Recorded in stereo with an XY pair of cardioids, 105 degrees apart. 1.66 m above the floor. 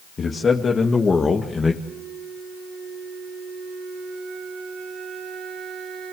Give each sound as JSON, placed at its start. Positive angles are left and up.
{"t": 0.2, "sound": "a man speaking", "azimuth_deg": 35, "distance_m": 3.0}
{"t": 1.8, "sound": "a flute", "azimuth_deg": -50, "distance_m": 3.0}